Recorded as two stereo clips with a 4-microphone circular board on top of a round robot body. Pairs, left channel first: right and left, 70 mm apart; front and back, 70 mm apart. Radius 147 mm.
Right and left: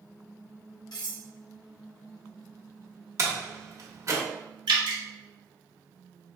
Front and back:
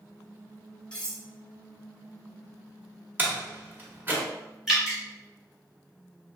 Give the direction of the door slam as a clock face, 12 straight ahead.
8 o'clock.